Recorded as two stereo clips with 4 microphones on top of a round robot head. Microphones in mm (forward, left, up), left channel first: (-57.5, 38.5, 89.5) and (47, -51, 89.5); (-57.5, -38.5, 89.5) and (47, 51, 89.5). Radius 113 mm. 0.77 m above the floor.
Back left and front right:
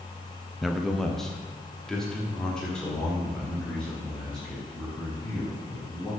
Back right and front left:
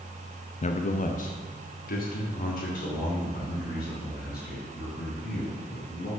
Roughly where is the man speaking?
Behind right.